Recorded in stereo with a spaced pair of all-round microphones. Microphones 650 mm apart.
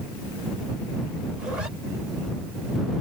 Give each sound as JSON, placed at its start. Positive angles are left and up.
{"t": 1.4, "sound": "a zipper", "side_deg": -80}